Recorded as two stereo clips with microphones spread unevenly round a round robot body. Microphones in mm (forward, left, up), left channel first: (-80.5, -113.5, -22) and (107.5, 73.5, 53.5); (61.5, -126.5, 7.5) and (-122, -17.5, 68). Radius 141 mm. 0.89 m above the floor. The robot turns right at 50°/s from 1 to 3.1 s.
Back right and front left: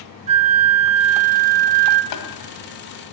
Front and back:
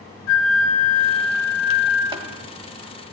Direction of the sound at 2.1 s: 150° right.